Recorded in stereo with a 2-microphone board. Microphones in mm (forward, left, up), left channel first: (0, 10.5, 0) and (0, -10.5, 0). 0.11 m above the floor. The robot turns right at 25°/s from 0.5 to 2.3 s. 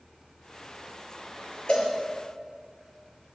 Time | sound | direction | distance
1.7 | a cowbell | 65° left (ahead or behind) | 5 m